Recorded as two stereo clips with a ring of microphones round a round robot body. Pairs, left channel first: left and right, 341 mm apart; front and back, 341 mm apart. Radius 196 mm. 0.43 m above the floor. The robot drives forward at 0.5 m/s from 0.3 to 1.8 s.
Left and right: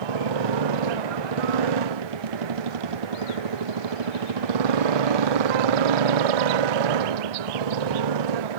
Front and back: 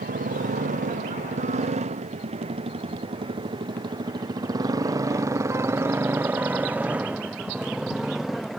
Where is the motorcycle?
110° right; by 8.6 s 90° right.